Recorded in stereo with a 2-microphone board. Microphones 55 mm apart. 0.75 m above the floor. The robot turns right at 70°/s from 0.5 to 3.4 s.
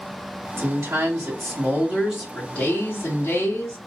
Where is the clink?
No clink in this recording.